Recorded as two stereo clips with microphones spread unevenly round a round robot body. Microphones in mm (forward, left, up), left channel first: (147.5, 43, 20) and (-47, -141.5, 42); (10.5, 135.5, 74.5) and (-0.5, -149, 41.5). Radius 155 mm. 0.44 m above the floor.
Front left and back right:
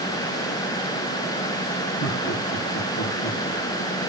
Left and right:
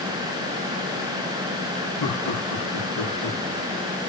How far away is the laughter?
About 5 m.